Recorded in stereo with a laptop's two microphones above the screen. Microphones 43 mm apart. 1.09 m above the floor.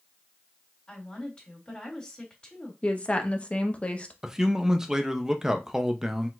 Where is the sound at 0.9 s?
20° left (ahead or behind), 2.5 m.